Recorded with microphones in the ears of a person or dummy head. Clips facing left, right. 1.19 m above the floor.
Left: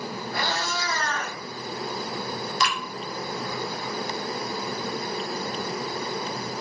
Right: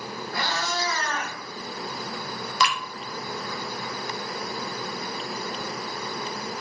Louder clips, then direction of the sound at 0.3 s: Right 1 dB; 20° left (ahead or behind).